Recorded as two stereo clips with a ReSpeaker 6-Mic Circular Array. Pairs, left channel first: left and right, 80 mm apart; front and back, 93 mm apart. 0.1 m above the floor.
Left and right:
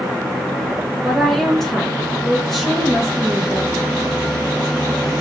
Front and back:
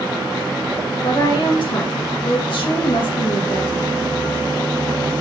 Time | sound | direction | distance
1.0 | a woman speaking | 5° left | 2.5 m